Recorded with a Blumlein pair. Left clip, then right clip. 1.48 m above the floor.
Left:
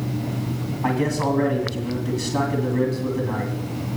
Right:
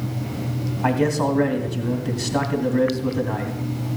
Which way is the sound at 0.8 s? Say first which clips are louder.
Right 2 dB; 20° right.